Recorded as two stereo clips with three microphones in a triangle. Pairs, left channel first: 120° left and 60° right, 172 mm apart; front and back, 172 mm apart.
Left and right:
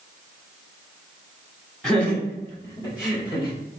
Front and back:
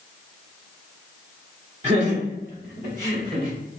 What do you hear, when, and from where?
1.8 s laughter: 155° right, 1.6 m; by 3.5 s 175° left, 2 m